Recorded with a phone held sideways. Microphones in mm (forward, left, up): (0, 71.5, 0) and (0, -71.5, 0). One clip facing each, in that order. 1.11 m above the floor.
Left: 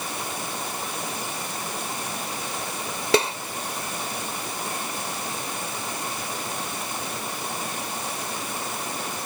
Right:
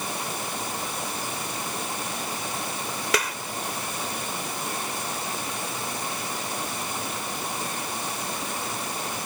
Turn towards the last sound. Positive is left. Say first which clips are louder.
# left 7 dB
turn(degrees=30)  # may be behind; listen again after turning